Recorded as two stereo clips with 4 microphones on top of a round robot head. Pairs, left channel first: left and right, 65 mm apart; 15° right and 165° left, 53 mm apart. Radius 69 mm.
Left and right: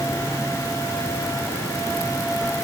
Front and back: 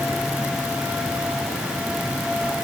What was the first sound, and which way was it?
Only background noise.